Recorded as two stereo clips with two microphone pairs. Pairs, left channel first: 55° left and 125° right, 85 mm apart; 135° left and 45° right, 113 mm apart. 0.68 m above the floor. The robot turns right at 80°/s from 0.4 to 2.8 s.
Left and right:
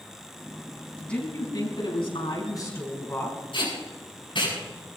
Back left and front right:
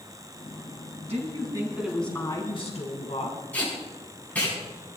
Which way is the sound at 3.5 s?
60° left.